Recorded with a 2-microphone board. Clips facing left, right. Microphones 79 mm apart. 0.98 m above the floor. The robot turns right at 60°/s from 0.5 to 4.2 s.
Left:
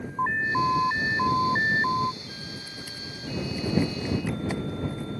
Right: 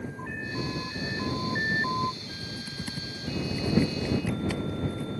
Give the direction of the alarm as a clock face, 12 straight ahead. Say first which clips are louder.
Left 13 dB; 10 o'clock.